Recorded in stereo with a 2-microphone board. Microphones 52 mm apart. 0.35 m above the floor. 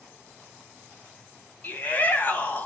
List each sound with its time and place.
1.6 s a shout: 35° left (ahead or behind), 2 m